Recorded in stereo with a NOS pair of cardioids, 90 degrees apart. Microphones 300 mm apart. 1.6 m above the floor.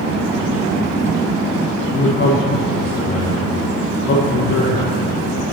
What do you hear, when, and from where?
1.9 s a man speaking: 65° left, 4.5 m